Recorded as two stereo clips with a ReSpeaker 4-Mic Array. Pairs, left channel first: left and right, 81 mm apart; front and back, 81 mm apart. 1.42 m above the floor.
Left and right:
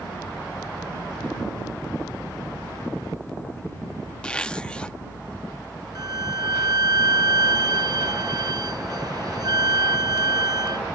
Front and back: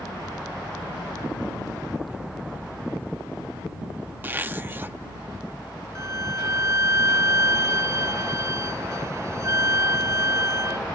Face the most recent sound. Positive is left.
turn(degrees=-125)